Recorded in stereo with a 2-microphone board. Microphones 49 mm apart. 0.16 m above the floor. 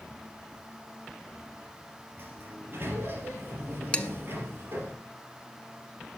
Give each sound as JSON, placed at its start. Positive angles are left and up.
{"t": 2.2, "sound": "a sliding door", "side_deg": -50, "distance_m": 3.5}
{"t": 3.9, "sound": "dishes clattering", "side_deg": 25, "distance_m": 0.9}